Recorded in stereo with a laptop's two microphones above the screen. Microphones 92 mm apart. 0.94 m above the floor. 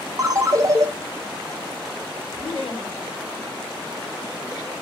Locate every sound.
0.2 s a ringtone: 40° right (ahead or behind), 0.5 m
2.4 s laughter: 60° left (ahead or behind), 1.2 m